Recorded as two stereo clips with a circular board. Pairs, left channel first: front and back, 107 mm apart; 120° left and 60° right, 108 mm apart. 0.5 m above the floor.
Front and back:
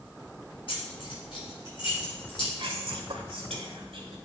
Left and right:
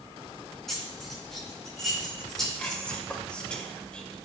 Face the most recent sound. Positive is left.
turn(degrees=-160)